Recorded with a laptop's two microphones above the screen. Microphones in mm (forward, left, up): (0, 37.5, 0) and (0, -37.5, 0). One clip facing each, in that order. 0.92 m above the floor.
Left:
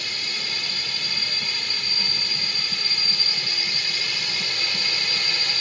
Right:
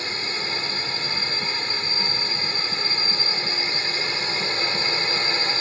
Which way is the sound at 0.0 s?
30° right (ahead or behind).